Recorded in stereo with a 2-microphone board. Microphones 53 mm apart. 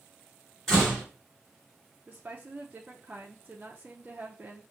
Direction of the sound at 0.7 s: 5° left (ahead or behind).